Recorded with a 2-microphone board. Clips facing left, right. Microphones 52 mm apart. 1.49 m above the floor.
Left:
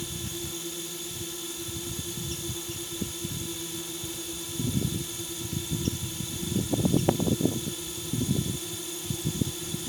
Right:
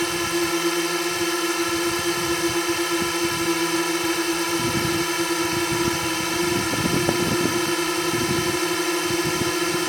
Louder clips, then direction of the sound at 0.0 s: Right 15 dB; 70° right (ahead or behind).